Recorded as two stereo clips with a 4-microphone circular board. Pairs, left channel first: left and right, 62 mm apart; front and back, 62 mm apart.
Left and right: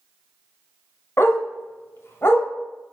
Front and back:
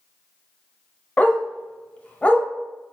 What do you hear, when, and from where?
1.2 s a dog barking: 65° left, 0.5 m